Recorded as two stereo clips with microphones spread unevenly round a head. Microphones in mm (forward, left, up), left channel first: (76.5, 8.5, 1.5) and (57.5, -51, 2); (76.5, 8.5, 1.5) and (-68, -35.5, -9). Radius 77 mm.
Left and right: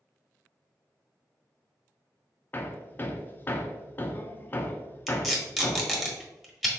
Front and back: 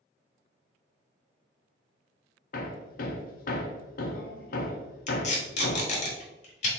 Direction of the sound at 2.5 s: 15° left.